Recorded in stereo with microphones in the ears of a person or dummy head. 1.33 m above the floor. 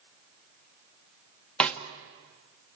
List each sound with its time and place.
1.6 s a snare drum: 5° left (ahead or behind), 1.5 m